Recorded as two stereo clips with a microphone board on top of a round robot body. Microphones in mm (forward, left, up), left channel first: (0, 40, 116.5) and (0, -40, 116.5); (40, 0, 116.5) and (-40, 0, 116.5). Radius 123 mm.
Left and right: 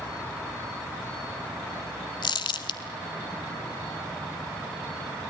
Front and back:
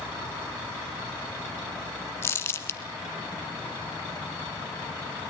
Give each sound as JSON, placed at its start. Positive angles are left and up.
{"t": 2.2, "sound": "crumpling", "azimuth_deg": 60, "distance_m": 1.2}